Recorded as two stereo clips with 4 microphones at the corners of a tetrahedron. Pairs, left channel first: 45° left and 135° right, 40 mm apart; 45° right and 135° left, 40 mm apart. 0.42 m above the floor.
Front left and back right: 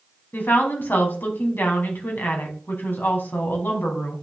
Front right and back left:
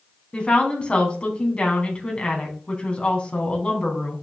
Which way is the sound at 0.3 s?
15° left.